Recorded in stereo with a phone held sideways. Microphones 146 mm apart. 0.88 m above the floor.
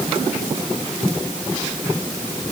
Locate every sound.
Only background noise.